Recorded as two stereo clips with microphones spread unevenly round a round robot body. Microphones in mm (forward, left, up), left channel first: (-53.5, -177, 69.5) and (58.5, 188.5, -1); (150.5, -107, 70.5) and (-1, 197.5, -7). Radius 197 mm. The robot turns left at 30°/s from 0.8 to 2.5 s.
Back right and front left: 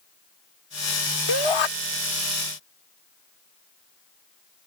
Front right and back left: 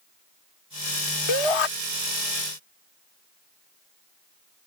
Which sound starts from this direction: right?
A shout, at 1.3 s.